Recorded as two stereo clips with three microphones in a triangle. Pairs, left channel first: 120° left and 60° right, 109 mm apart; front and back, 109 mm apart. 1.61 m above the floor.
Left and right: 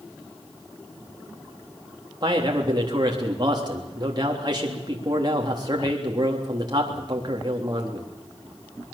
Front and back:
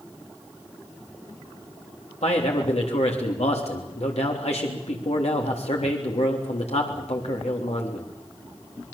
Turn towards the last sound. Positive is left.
turn(degrees=-10)